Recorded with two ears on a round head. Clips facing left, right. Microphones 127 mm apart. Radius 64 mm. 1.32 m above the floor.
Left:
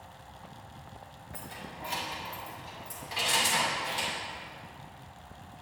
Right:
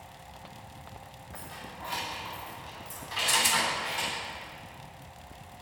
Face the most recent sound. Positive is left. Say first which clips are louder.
# right 1 dB
turn(degrees=-15)  # may be behind; listen again after turning